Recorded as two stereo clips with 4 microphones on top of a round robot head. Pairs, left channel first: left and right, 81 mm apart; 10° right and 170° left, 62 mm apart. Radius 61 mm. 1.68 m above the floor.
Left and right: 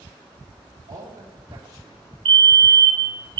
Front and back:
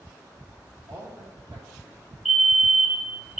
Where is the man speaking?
140° right, 2.5 m.